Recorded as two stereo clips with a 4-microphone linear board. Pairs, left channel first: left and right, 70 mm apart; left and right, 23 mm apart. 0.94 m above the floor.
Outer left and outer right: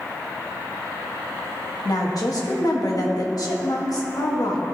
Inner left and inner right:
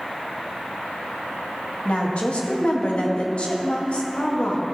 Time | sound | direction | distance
1.9 | a woman speaking | 60° left (ahead or behind) | 1.6 m